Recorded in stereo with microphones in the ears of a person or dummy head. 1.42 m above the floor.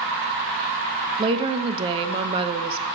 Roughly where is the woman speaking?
Right.